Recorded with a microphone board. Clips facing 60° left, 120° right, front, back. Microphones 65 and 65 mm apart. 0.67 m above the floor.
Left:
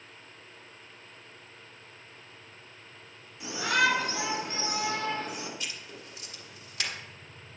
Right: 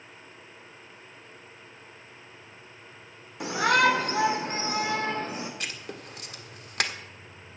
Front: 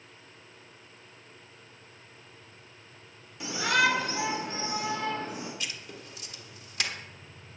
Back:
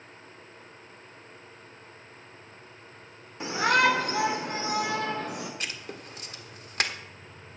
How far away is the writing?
About 1.4 m.